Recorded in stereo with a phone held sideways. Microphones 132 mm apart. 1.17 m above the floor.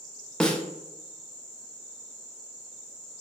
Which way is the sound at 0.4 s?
5° left (ahead or behind).